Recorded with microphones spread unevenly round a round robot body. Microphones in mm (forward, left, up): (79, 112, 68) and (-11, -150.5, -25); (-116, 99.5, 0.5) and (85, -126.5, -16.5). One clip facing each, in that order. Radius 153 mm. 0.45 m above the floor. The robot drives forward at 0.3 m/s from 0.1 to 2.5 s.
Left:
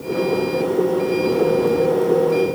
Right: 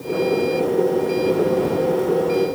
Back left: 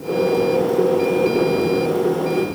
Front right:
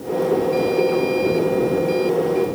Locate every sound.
Only background noise.